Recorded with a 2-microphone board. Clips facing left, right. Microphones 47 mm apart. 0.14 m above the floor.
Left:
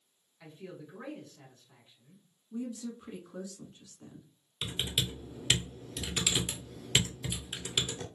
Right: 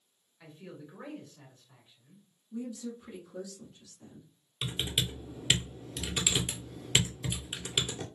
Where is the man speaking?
15° right (ahead or behind), 1.5 m.